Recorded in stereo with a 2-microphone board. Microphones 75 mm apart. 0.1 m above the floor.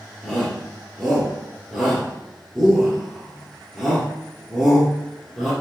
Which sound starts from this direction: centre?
A shout, at 0.2 s.